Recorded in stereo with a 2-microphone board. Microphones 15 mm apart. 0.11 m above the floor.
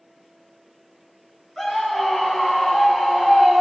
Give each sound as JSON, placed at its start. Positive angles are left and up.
{"t": 1.6, "sound": "a scream", "side_deg": 10, "distance_m": 1.3}